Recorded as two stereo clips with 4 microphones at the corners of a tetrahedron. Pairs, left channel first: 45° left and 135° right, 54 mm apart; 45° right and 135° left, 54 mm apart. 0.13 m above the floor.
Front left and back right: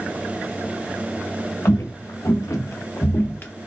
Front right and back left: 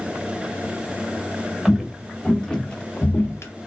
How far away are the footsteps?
About 1.6 m.